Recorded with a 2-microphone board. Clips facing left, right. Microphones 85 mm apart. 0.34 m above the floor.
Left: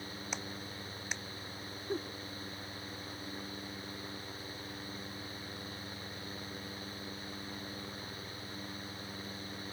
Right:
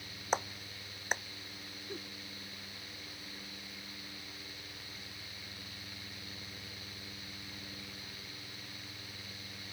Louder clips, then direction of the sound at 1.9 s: Left 9 dB; 35° left (ahead or behind).